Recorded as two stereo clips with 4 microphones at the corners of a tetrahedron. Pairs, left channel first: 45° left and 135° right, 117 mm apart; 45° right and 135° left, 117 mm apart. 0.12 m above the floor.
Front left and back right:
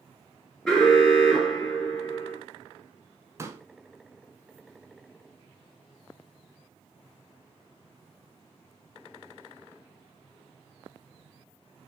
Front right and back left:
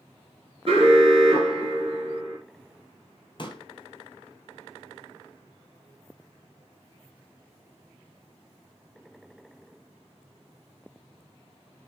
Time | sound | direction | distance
0.7 | an alarm | 125° left | 2 m
3.4 | a pop | 75° right | 0.6 m